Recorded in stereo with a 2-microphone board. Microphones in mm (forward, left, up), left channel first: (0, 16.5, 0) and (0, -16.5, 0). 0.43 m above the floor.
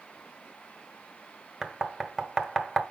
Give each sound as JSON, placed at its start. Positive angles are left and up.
{"t": 1.6, "sound": "knocking", "side_deg": -10, "distance_m": 1.1}